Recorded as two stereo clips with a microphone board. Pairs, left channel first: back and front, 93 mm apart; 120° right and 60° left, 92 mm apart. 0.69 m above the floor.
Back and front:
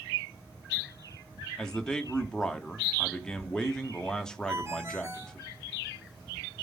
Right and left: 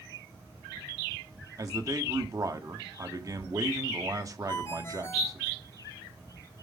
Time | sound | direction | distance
1.6 | a man speaking | 100° left | 1.2 m
4.5 | a ringtone | 60° right | 3 m